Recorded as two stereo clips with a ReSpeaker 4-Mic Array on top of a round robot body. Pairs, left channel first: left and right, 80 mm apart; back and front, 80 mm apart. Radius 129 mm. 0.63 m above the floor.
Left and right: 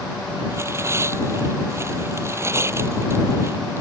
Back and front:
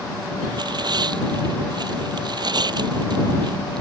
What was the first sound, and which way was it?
Tearing paper, 30° right.